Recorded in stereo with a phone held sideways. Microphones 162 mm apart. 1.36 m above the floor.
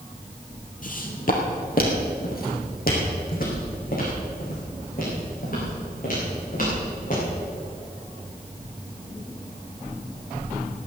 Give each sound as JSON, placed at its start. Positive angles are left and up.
{"t": 0.8, "sound": "footsteps", "side_deg": 55, "distance_m": 2.5}